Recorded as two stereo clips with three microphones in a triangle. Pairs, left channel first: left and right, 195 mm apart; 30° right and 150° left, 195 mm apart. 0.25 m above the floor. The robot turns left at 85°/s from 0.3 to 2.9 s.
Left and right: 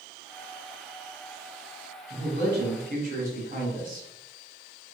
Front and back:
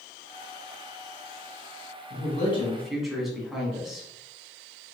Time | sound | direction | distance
2.1 | a man speaking | 55° right | 1.7 m